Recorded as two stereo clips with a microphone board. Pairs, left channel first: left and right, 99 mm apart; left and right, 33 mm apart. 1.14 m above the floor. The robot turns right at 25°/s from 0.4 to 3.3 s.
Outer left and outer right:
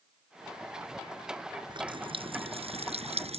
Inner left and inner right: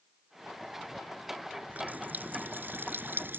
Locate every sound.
1.7 s a running tap: 130° right; by 3.4 s 90° right